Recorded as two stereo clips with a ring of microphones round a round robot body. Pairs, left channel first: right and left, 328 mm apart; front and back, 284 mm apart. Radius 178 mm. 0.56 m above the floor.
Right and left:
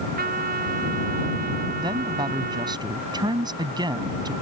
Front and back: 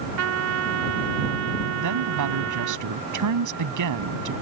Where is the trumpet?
155° left.